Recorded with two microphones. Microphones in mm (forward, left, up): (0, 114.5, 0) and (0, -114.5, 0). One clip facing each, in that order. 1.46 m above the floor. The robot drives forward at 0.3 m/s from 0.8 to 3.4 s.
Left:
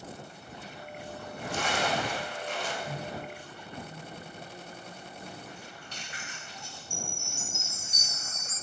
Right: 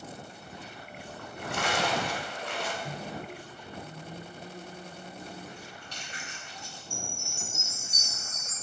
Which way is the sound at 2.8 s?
45° right (ahead or behind).